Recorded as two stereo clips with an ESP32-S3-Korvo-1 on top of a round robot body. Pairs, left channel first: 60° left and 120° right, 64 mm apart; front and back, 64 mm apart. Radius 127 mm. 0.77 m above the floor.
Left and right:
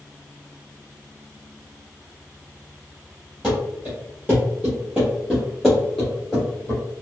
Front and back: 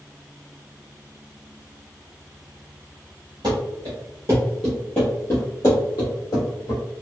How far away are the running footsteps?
About 0.9 m.